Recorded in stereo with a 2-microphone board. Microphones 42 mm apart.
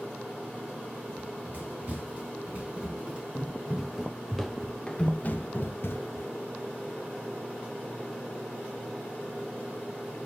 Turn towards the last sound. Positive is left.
turn(degrees=75)  # may be behind; listen again after turning